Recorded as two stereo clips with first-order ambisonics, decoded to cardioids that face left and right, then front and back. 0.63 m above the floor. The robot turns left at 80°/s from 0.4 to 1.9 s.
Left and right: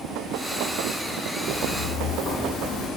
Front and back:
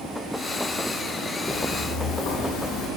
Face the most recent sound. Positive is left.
turn(degrees=20)